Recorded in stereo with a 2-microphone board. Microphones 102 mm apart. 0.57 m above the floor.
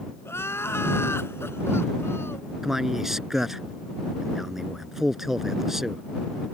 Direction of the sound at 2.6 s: 5° right (ahead or behind).